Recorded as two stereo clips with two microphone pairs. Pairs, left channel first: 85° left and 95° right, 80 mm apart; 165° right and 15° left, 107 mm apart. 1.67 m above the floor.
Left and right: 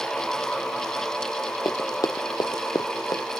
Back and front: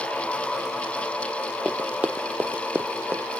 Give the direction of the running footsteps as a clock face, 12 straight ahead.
9 o'clock.